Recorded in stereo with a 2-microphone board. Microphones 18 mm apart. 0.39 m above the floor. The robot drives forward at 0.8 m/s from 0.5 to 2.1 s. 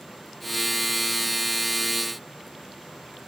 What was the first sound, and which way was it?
Only background noise.